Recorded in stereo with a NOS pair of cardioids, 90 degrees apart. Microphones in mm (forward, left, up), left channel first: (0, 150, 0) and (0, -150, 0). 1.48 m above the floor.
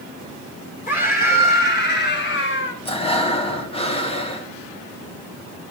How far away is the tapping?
No tapping in this recording.